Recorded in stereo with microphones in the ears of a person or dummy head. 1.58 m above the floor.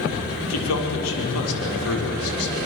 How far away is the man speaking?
About 6 m.